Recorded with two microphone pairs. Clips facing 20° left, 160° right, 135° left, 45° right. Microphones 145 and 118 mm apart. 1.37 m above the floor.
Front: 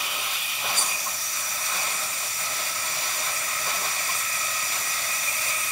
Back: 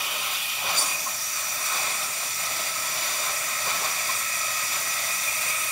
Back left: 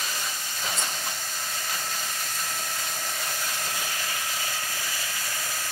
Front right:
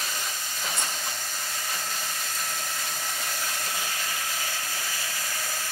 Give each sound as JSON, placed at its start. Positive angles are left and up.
{"t": 0.7, "sound": "cutlery clinking", "azimuth_deg": -20, "distance_m": 5.5}